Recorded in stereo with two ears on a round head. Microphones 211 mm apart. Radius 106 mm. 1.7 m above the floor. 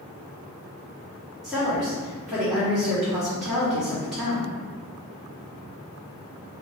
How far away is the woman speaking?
About 1.1 m.